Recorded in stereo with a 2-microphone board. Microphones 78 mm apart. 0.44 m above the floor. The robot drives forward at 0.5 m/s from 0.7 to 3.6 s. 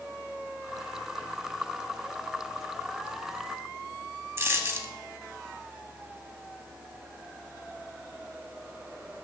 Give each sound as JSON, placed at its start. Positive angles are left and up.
{"t": 4.4, "sound": "a dropped coin", "side_deg": -35, "distance_m": 0.6}